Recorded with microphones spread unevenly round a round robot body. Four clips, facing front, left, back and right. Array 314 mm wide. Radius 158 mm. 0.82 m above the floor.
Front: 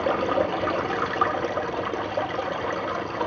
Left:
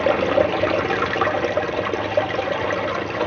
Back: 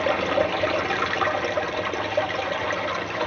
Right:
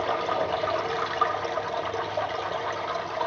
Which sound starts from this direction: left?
Running water, at 0.0 s.